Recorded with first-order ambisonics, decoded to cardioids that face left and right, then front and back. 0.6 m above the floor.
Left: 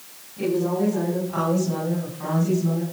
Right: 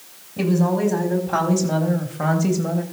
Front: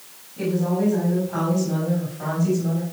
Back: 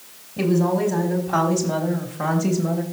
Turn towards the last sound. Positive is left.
turn(degrees=-115)